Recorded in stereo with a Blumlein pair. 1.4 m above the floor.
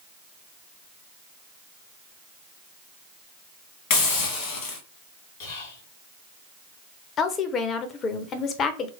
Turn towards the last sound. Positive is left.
turn(degrees=30)